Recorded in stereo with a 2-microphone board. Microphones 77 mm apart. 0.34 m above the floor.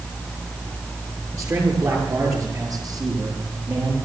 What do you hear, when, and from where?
1.3 s a man speaking: 40° right (ahead or behind), 8 m; by 4.0 s 55° right (ahead or behind), 8 m